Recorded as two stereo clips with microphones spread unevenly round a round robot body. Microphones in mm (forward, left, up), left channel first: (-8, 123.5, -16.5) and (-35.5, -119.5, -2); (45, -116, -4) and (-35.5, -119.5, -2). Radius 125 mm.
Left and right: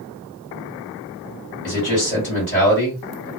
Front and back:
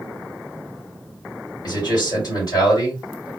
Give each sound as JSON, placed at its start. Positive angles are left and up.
{"t": 1.6, "sound": "a man speaking", "azimuth_deg": 15, "distance_m": 1.9}